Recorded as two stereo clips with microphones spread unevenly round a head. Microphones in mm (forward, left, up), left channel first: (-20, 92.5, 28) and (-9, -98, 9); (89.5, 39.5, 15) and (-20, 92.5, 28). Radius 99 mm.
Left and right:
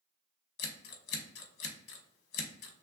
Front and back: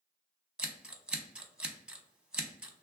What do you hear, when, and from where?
0.6 s scissors: 75° left, 0.8 m